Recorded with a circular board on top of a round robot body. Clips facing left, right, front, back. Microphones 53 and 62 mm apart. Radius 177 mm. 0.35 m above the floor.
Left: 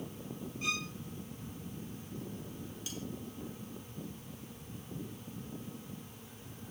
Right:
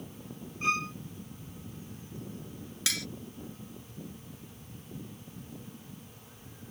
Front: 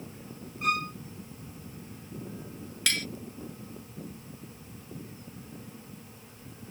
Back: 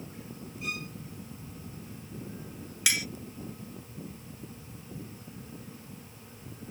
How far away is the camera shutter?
I don't hear a camera shutter.